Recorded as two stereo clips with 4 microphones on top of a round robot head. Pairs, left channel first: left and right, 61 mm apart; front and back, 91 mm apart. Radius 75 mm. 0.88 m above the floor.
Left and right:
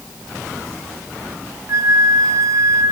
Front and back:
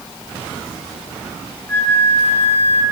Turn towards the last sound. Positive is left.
turn(degrees=-65)